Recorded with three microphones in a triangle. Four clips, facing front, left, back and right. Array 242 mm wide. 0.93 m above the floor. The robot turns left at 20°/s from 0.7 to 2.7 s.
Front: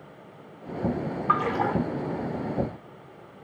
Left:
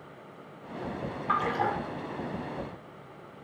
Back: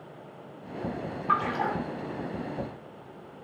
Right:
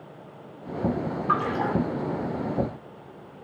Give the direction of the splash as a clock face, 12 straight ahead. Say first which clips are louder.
Right 2 dB, front 2 dB; 12 o'clock.